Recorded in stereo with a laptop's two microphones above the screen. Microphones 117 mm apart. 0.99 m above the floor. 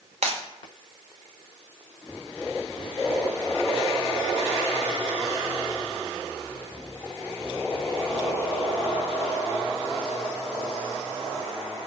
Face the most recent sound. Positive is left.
turn(degrees=-70)  # may be behind; listen again after turning